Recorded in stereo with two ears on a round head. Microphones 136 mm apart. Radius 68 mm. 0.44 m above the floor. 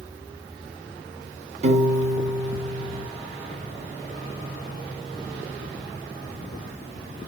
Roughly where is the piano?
Right.